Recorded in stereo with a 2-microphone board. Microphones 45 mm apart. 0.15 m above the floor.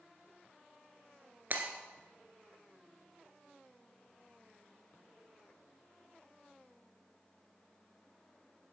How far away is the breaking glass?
About 1.6 m.